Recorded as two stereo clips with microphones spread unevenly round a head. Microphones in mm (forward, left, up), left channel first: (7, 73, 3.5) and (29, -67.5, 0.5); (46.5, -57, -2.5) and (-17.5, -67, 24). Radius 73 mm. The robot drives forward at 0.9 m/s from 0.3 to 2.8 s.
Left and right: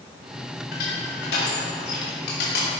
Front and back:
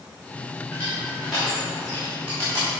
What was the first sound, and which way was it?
Crushing, 95° left.